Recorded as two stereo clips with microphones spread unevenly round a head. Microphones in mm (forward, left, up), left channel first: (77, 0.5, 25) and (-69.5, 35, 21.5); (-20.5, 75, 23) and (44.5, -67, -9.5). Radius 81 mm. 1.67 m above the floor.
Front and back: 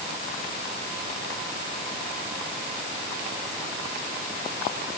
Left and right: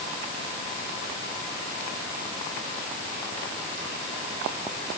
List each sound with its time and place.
Only background noise.